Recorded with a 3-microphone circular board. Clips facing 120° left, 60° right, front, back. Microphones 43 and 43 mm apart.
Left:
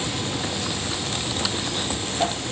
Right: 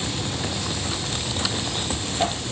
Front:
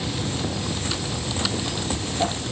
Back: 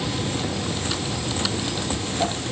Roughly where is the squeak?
I don't hear a squeak.